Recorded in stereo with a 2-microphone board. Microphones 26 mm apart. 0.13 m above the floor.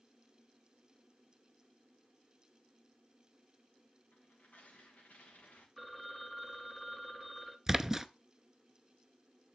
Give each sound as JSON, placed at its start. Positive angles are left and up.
{"t": 4.1, "sound": "tearing paper", "side_deg": 85, "distance_m": 4.5}
{"t": 5.8, "sound": "a phone ringing", "side_deg": 0, "distance_m": 1.0}
{"t": 7.7, "sound": "a splash", "side_deg": -15, "distance_m": 0.6}